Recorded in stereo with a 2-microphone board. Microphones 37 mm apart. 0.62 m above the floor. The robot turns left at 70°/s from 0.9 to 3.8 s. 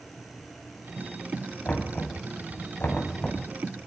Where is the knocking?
30° left (ahead or behind), 4 m; by 3.9 s centre (ahead or behind), 4 m.